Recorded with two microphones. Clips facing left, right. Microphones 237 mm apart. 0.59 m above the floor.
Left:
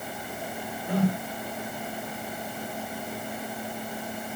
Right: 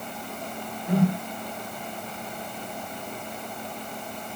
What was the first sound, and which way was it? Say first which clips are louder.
A whoosh: right 3 dB; 20° right (ahead or behind).